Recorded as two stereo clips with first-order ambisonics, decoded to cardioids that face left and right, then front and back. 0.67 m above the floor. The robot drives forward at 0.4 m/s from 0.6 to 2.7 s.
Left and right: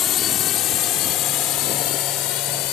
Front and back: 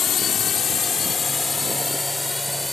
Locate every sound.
0.0 s a drone: 50° left; by 2.7 s 85° left